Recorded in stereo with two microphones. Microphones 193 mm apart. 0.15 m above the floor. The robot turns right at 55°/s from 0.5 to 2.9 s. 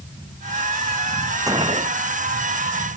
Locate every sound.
1.5 s a gunshot: 15° right (ahead or behind); by 2.0 s 45° right (ahead or behind)